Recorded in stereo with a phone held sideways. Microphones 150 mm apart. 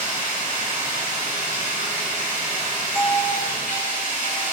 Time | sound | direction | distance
0.0 | running water | 60° right (ahead or behind) | 2.5 m
3.0 | a doorbell | 5° right (ahead or behind) | 1.3 m